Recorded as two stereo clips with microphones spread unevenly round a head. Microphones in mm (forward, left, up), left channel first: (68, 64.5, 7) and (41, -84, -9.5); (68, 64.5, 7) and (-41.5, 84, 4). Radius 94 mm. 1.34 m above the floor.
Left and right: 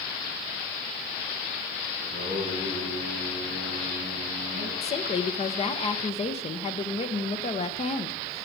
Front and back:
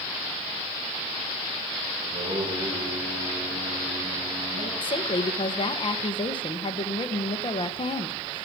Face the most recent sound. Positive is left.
turn(degrees=30)